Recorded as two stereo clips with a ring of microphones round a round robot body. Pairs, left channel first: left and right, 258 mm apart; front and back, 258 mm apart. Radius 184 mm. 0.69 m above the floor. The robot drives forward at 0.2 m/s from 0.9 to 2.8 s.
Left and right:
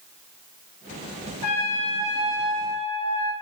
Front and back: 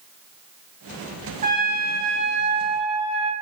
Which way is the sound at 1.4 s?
115° left.